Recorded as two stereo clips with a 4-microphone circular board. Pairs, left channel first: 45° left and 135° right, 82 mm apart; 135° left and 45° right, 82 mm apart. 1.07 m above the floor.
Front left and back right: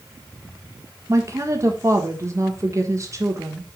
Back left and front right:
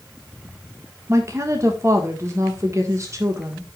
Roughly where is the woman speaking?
Right.